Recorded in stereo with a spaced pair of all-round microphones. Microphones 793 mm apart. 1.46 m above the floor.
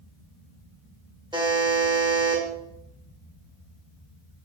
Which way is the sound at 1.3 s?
5° right (ahead or behind).